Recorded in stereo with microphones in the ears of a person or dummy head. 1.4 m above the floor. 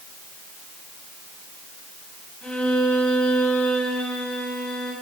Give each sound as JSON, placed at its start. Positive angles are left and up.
{"t": 2.4, "sound": "a violin", "side_deg": 5, "distance_m": 9.5}